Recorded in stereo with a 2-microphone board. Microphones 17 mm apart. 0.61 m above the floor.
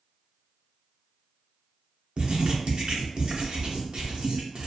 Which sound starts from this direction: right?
Writing, at 2.2 s.